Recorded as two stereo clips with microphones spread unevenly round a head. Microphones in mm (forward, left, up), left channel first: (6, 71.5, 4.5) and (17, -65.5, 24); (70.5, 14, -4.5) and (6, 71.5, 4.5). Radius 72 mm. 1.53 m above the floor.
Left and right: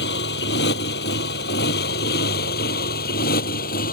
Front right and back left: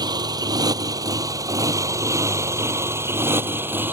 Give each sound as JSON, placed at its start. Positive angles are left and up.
{"t": 0.0, "sound": "a motorcycle", "azimuth_deg": 100}